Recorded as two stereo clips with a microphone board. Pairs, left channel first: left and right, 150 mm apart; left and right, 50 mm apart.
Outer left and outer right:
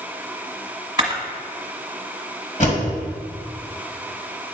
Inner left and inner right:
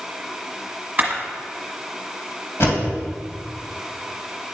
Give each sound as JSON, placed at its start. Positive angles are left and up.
{"t": 1.0, "sound": "a camera shutter", "side_deg": -30, "distance_m": 1.4}
{"t": 2.6, "sound": "a door slam", "side_deg": 55, "distance_m": 2.5}